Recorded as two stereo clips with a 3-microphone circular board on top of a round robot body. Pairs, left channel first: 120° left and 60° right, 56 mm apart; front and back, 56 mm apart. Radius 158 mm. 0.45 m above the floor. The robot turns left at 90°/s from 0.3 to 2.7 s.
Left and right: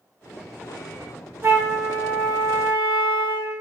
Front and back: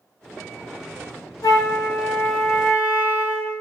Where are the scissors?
No scissors in this recording.